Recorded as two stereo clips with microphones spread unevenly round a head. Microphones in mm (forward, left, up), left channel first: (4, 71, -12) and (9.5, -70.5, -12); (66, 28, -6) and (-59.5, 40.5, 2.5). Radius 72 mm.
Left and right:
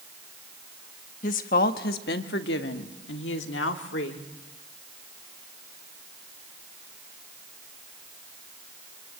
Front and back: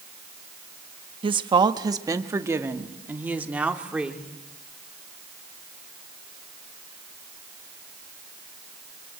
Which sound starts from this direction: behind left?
A woman speaking, at 1.2 s.